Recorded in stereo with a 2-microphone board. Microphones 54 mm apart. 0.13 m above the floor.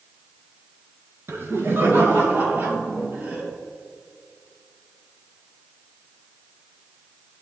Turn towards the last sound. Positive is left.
turn(degrees=-30)  # may be behind; listen again after turning